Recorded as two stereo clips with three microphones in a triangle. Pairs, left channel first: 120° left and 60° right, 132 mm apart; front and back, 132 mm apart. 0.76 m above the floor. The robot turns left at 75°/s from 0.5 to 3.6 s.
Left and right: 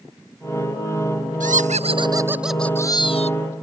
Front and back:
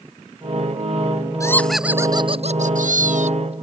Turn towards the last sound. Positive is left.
turn(degrees=130)